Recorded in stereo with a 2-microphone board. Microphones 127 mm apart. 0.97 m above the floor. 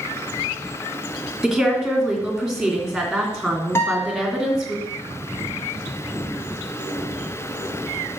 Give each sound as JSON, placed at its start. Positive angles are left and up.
{"t": 1.4, "sound": "a woman speaking", "side_deg": 0, "distance_m": 2.5}
{"t": 3.8, "sound": "a guitar", "side_deg": 20, "distance_m": 1.6}